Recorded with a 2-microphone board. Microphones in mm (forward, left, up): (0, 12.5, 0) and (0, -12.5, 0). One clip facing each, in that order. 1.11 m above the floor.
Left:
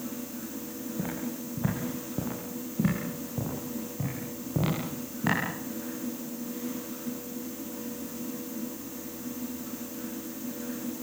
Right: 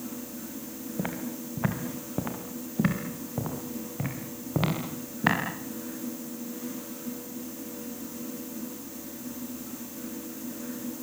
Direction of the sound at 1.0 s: 40° right (ahead or behind).